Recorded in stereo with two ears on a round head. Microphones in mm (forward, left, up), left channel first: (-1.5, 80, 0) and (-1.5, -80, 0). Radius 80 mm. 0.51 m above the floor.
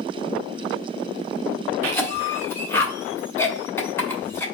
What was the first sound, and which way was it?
A cough, 15° left (ahead or behind).